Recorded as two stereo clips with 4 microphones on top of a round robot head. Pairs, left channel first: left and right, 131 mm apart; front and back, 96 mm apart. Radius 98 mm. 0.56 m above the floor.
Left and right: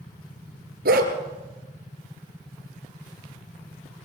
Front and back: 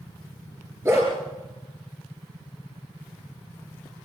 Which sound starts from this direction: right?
A dog barking, at 0.8 s.